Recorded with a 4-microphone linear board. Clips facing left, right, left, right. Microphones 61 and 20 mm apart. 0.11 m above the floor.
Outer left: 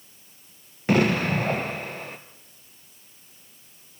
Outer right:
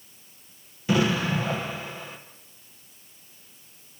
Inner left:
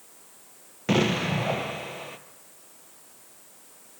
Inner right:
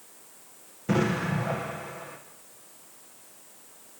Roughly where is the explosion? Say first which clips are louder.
Outer left 2 dB, inner left 2 dB; left.